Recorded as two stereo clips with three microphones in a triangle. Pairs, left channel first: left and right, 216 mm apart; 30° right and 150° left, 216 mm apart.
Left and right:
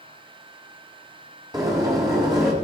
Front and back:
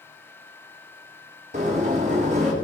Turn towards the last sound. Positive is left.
turn(degrees=-160)